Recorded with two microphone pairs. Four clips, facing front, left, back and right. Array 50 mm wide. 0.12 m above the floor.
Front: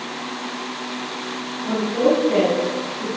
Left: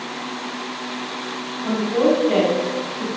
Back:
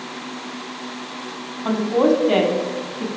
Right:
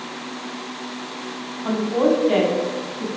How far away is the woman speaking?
About 6 m.